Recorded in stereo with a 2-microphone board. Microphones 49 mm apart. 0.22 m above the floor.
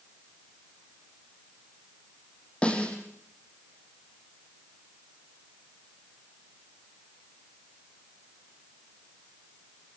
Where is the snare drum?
25° left (ahead or behind), 5 m.